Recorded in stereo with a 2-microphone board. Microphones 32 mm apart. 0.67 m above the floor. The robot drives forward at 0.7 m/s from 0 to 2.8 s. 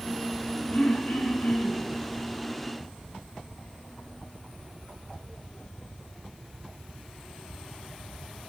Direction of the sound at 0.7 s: 70° left (ahead or behind).